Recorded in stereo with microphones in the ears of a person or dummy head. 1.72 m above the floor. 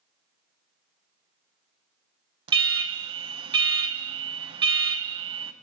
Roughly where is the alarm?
Right.